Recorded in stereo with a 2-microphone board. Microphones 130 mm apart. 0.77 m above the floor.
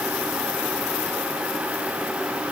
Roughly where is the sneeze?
I don't hear a sneeze.